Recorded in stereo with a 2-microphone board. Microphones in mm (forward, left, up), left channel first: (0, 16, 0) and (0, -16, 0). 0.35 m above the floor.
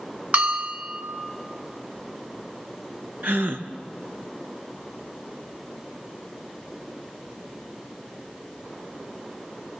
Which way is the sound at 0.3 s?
50° right (ahead or behind).